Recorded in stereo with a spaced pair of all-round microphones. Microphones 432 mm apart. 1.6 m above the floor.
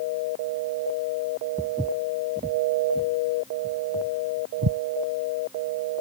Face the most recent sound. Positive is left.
turn(degrees=-55)  # may be behind; listen again after turning